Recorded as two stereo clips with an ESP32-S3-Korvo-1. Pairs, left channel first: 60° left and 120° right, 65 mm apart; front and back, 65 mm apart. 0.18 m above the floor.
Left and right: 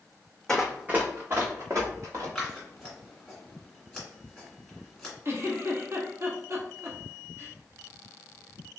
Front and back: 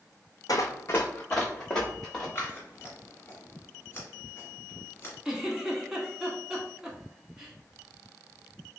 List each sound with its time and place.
0.5 s running footsteps: 20° right, 0.5 m; by 2.2 s 85° right, 1.7 m
2.4 s scissors: 30° right, 1.7 m
5.2 s a giggle: 105° right, 0.8 m